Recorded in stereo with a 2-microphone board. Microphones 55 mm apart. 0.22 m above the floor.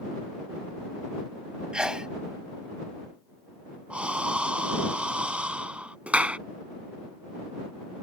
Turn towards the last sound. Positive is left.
turn(degrees=-25)  # may be behind; listen again after turning